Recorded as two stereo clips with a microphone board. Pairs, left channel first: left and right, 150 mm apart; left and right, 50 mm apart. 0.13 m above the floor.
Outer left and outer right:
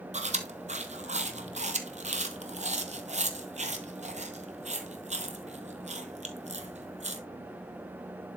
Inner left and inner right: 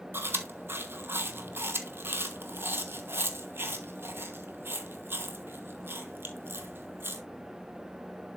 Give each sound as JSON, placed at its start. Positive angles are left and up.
{"t": 0.1, "sound": "chewing", "side_deg": -50, "distance_m": 1.1}